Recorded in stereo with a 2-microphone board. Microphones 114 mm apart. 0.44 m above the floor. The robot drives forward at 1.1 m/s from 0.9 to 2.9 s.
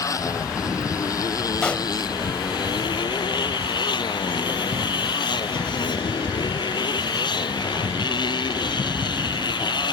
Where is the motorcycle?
30° left (ahead or behind); by 9.9 s 40° left (ahead or behind).